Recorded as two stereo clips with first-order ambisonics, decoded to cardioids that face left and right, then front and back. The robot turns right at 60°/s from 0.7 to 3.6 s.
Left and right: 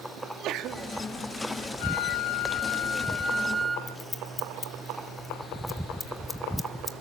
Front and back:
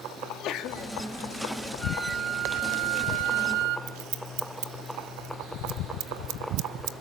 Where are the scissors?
170° left, 1.1 m.